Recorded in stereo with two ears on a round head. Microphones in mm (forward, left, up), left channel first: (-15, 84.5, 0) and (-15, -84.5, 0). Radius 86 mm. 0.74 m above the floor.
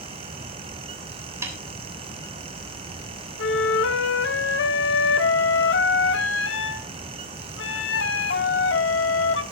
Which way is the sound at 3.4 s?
65° left (ahead or behind).